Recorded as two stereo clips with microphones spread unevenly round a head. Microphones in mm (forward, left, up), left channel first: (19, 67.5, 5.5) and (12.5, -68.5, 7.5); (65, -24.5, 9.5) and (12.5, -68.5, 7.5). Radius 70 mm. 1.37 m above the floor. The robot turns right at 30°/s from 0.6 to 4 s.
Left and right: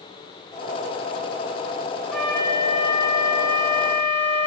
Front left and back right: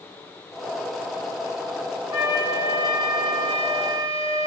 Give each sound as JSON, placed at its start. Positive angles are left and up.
{"t": 2.1, "sound": "a flute", "azimuth_deg": 175, "distance_m": 1.6}